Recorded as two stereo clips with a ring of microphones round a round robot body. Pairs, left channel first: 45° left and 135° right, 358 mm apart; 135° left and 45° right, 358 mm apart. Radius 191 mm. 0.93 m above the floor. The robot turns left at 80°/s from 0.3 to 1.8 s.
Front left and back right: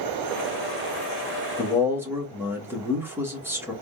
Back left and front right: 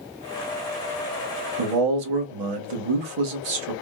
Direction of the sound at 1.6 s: 35° right.